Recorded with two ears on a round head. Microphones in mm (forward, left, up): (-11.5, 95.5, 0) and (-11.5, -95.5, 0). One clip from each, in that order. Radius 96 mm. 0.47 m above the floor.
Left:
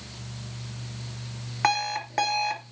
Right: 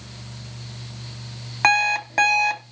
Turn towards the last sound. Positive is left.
turn(degrees=-25)  # may be behind; listen again after turning